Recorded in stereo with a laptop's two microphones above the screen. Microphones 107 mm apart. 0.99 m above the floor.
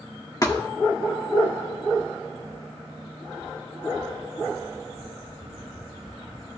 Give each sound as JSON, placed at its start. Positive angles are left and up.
{"t": 0.4, "sound": "a thud", "side_deg": 35, "distance_m": 1.0}